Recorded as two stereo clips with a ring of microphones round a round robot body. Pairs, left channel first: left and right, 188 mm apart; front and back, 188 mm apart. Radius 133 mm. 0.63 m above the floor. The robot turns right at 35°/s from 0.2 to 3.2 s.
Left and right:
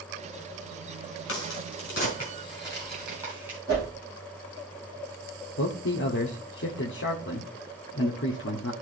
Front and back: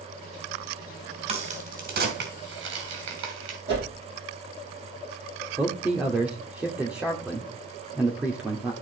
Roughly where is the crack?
Behind left.